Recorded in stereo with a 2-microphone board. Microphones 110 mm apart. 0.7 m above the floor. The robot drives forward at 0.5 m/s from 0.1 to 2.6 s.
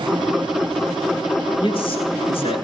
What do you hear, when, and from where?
1.6 s a man speaking: 55° left (ahead or behind), 9.5 m